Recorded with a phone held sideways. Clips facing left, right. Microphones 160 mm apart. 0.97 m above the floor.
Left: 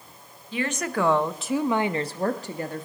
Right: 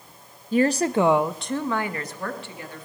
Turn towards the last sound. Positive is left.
turn(degrees=45)  # may be behind; listen again after turning